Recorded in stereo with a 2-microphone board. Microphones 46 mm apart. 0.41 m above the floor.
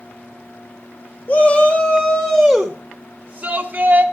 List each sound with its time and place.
1.3 s a shout: 35° left (ahead or behind), 1.3 m; by 4.0 s 35° right (ahead or behind), 1.4 m